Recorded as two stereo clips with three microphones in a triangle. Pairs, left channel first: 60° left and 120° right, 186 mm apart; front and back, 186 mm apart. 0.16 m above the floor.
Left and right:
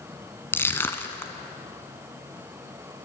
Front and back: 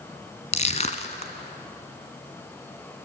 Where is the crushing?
10° right, 1.3 m.